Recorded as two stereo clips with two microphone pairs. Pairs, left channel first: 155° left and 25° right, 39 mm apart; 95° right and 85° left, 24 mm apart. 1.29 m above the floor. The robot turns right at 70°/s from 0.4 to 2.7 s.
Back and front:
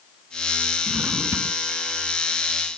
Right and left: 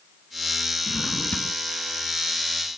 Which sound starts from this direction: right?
A drawer, at 0.9 s.